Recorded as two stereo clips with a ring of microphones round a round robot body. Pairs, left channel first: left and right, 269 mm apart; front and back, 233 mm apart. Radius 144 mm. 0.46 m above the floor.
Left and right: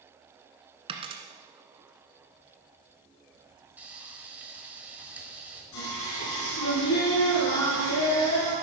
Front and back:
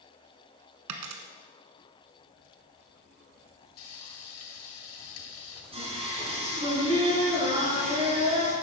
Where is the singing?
115° left, 5 m.